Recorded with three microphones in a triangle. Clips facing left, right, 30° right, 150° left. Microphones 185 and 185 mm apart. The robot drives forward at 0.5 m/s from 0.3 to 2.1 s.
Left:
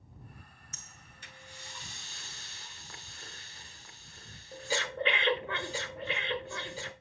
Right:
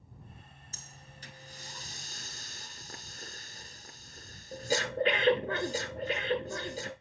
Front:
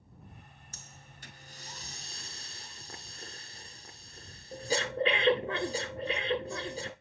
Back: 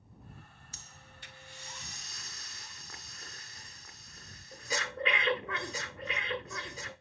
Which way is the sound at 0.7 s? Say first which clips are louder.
Right 3 dB, front 1 dB; 45° right.